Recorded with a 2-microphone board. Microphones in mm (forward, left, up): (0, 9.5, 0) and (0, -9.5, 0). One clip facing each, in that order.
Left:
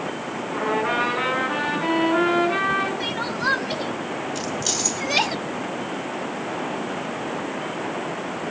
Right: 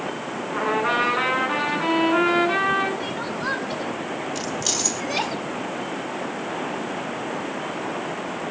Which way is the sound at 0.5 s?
30° right (ahead or behind).